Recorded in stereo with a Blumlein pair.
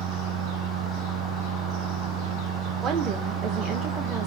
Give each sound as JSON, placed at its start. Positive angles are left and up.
{"t": 0.0, "sound": "a machine running", "azimuth_deg": -30, "distance_m": 0.7}
{"t": 2.8, "sound": "a woman speaking", "azimuth_deg": -20, "distance_m": 0.9}